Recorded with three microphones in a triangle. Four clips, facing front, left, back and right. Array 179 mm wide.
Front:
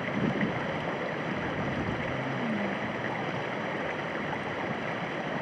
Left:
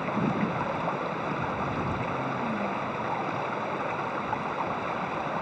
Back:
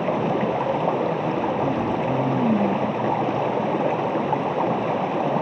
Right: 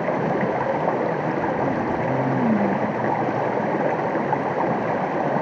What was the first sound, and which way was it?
Running water, 140° right.